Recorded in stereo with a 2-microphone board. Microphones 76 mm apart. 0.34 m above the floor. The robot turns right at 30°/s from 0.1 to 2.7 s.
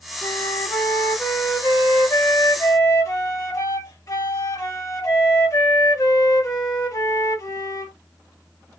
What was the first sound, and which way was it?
A flute, 35° left.